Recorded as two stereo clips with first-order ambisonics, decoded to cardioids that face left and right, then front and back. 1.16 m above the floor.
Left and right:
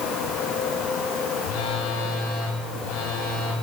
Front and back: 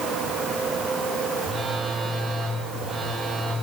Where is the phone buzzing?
95° left, 8 m.